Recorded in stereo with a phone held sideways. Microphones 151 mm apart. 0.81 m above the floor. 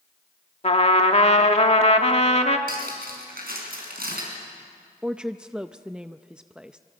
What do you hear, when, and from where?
0.6 s a trumpet: 45° left (ahead or behind), 1.4 m
2.7 s cutlery clinking: 85° right, 5.5 m
5.0 s a woman speaking: 5° right (ahead or behind), 0.5 m